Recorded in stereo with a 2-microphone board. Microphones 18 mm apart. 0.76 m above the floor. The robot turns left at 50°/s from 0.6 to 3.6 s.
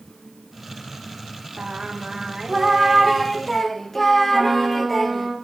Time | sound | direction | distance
1.6 | singing | 100° right | 0.6 m
4.3 | a trumpet | 20° right (ahead or behind) | 1.8 m